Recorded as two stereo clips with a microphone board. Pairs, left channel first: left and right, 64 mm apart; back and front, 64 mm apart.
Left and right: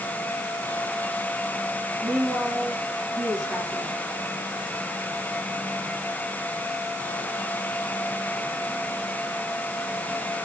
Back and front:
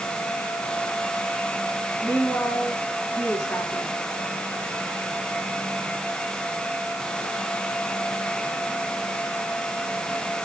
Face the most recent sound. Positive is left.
turn(degrees=-110)